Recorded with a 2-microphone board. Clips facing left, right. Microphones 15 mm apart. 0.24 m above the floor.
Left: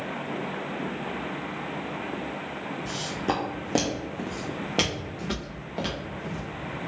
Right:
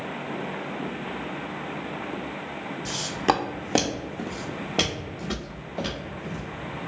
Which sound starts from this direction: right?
Footsteps, at 2.9 s.